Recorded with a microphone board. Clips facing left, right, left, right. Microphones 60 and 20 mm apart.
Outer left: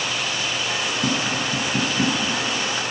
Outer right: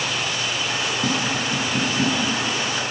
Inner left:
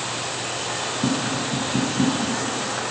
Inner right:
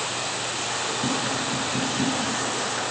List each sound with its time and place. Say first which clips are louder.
1.0 s tapping: even, inner left 4 dB; 10° left (ahead or behind), 7 m